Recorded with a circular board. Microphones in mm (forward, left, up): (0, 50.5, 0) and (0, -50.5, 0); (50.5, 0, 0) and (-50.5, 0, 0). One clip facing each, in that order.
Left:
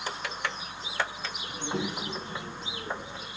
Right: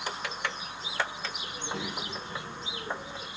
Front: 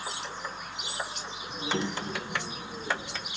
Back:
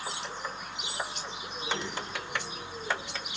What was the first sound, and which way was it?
A child speaking, 40° left.